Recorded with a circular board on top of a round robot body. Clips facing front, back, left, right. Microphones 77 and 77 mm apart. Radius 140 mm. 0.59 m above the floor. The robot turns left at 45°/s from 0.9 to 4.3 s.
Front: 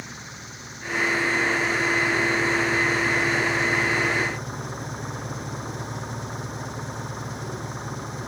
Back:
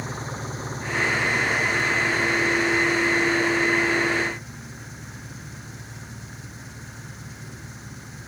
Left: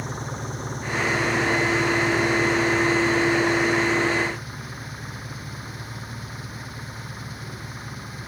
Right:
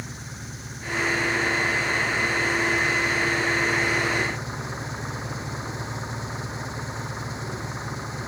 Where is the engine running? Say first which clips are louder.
Back 7 dB, left 7 dB; 125° left; by 8.3 s 25° right.